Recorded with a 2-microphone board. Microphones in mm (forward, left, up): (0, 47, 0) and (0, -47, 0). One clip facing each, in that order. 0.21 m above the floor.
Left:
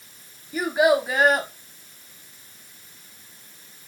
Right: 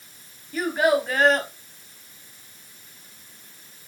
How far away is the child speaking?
About 0.6 m.